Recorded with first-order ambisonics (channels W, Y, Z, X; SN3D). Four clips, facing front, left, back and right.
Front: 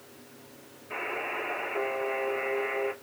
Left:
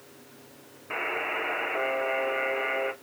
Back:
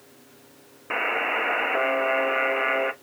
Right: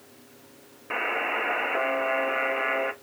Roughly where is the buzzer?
Behind.